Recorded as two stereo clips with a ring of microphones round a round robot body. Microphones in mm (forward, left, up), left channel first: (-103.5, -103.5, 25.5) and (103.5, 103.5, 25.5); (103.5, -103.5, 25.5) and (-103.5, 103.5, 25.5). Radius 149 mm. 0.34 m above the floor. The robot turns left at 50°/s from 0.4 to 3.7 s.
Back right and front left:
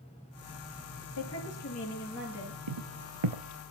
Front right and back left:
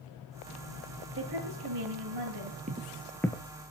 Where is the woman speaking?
170° right, 8 m; by 2.6 s 120° left, 8 m.